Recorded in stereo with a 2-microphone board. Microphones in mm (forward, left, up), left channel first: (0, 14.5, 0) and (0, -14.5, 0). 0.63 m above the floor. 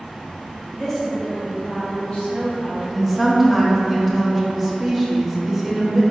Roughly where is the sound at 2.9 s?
Centre.